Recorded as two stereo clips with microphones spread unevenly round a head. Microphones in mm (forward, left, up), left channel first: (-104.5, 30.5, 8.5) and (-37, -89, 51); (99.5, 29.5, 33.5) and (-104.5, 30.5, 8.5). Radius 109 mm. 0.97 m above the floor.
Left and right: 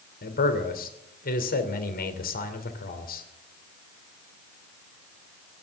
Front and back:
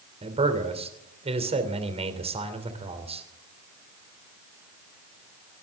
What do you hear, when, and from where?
0.2 s a man speaking: 120° left, 3 m